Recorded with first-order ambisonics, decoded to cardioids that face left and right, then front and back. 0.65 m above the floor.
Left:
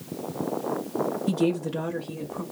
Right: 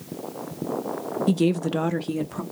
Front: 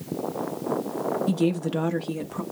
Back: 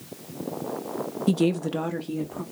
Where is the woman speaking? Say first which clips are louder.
Right 6 dB, back 1 dB; 140° right, 0.6 m; by 2.4 s 60° right, 0.9 m.